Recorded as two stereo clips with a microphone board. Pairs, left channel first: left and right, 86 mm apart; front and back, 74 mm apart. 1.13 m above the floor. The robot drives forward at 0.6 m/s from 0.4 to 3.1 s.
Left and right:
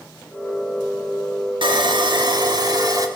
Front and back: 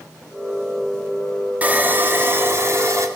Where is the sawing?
110° right, 1.6 m; by 3.1 s 135° right, 2 m.